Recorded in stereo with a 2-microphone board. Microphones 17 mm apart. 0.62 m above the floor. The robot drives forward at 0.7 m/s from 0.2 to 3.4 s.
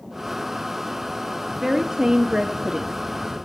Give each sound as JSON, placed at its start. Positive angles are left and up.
{"t": 1.6, "sound": "a woman speaking", "side_deg": -35, "distance_m": 1.2}